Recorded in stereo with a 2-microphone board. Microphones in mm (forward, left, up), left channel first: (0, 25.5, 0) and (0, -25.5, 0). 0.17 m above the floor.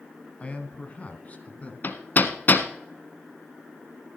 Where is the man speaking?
25° left (ahead or behind), 1.3 m; by 1.7 s 30° left (ahead or behind), 1.8 m.